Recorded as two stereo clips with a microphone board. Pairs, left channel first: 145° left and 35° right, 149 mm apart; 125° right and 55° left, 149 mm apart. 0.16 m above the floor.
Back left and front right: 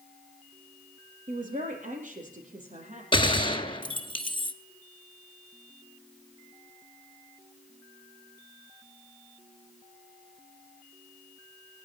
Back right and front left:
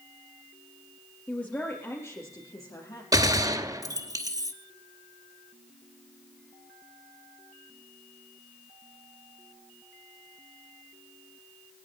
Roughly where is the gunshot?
Left.